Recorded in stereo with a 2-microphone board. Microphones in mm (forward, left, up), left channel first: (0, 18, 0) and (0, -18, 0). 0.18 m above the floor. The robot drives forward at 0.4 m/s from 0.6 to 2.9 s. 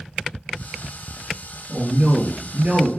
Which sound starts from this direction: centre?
A man speaking, at 1.7 s.